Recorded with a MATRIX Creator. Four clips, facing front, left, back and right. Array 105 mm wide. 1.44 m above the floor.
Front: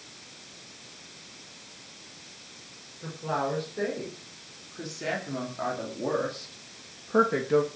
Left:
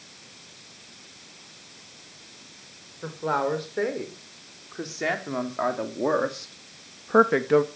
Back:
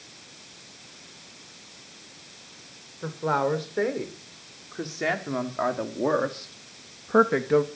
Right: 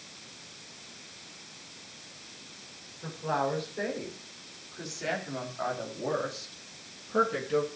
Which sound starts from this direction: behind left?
A woman speaking, at 3.0 s.